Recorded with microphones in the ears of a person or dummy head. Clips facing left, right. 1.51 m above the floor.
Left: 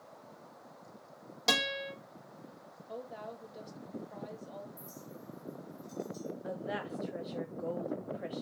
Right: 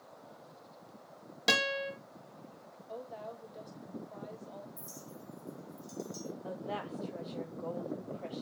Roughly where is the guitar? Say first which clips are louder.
Right 2 dB; centre.